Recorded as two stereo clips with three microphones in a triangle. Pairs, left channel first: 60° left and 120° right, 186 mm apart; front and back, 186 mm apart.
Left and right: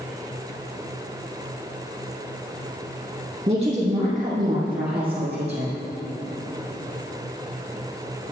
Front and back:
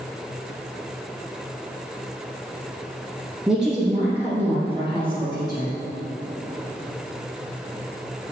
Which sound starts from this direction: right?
A woman speaking, at 3.5 s.